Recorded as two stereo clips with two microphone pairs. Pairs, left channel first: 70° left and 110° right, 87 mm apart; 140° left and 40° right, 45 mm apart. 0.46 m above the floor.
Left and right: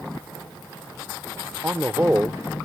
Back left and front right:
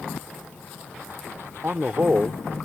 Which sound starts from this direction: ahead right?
A man speaking, at 1.6 s.